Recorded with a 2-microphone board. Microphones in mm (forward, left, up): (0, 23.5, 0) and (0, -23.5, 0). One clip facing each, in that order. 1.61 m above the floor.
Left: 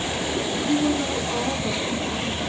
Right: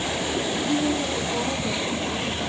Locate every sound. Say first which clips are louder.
0.6 s a woman speaking: left 3 dB; 50° left (ahead or behind), 1.2 m; by 2.4 s 30° left (ahead or behind), 2 m